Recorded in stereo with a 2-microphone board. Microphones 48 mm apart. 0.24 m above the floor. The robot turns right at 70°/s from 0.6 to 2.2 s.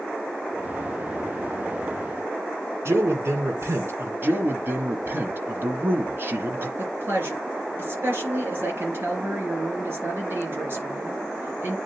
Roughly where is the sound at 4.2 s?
Right.